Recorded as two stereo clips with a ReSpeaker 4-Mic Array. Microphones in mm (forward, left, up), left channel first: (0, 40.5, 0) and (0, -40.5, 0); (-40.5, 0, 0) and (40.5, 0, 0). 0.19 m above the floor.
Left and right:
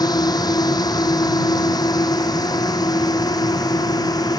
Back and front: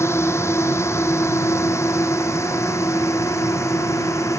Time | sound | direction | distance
0.0 | a drone | 125° left | ?